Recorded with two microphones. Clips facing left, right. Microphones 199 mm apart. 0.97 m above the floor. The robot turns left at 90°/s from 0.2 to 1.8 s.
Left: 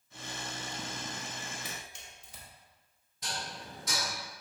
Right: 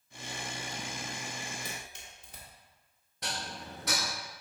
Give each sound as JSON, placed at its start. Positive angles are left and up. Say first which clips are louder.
{"t": 1.6, "sound": "a camera shutter", "louder": "right 1 dB", "side_deg": -40, "distance_m": 1.9}
{"t": 3.2, "sound": "dishes clattering", "louder": "right 1 dB", "side_deg": -60, "distance_m": 0.8}